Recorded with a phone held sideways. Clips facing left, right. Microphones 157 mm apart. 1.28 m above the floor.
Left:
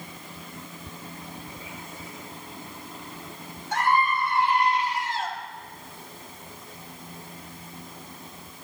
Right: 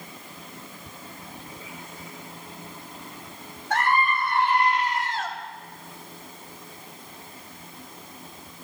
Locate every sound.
3.7 s a scream: 85° right, 8 m; by 5.3 s 80° right, 7 m